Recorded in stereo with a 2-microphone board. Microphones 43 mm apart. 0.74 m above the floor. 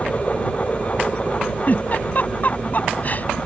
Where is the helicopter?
25° left (ahead or behind); by 3.5 s centre (ahead or behind).